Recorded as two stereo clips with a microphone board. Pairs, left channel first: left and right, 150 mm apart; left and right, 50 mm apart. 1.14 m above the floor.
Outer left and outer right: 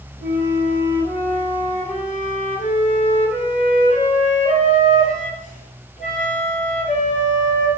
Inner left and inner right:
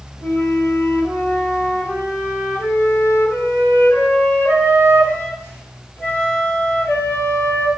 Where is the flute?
50° left (ahead or behind), 9 m.